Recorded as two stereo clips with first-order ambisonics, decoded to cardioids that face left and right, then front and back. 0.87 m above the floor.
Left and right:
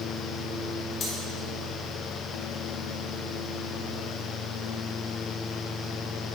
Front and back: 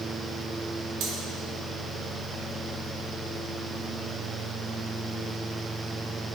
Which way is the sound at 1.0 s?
145° left.